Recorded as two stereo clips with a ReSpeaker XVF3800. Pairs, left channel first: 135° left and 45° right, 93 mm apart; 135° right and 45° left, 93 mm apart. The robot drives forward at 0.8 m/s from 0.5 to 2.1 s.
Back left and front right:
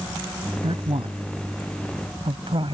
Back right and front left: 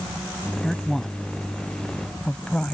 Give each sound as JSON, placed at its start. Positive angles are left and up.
{"t": 0.6, "sound": "a man speaking", "azimuth_deg": -45}